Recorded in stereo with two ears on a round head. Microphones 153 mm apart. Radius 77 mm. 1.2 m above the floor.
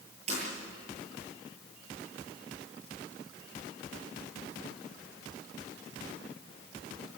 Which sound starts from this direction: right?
Breaking glass, at 0.3 s.